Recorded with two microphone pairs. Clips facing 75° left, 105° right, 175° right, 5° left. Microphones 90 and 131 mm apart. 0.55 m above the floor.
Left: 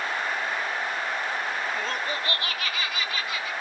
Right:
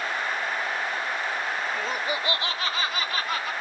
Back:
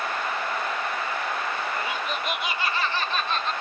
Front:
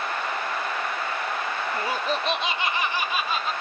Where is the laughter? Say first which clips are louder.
Right 1 dB, front 3 dB; 15° right; by 3.5 s 85° right.